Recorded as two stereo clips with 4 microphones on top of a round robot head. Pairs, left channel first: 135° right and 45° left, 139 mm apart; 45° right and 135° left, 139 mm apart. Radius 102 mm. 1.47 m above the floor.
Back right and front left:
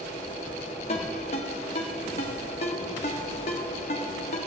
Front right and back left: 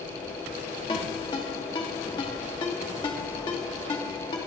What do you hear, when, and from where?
0.9 s a ringtone: 95° right, 0.9 m